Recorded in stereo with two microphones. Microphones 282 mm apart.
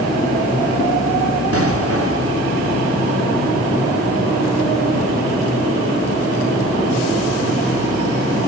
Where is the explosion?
55° right (ahead or behind), 1.2 m.